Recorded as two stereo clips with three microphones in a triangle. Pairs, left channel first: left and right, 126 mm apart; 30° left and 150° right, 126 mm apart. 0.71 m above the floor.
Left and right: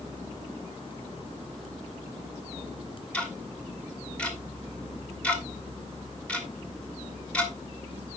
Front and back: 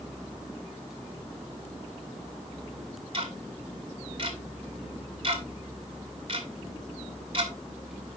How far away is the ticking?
About 1.6 m.